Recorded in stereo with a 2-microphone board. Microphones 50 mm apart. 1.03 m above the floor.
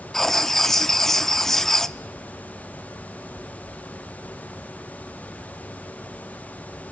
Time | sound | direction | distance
0.1 | writing | 10° left (ahead or behind) | 0.5 m